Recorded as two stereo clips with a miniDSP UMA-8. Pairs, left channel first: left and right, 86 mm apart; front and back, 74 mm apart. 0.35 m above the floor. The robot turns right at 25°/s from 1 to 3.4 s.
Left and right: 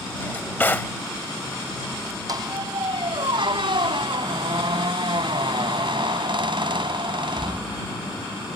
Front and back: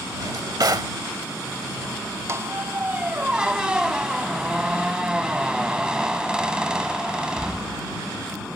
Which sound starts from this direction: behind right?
A squeak, at 2.3 s.